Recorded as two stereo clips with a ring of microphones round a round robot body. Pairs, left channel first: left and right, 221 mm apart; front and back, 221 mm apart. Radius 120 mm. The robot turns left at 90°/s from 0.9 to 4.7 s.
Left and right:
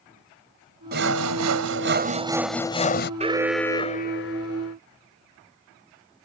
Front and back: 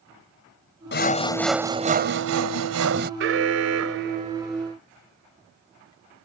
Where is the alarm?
150° right; by 4.8 s 75° left.